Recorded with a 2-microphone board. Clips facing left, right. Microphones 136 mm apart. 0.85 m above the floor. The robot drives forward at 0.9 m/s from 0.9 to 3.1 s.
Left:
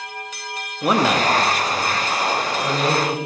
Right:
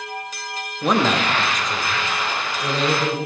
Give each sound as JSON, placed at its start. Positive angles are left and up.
{"t": 0.8, "sound": "a man speaking", "side_deg": 5, "distance_m": 1.1}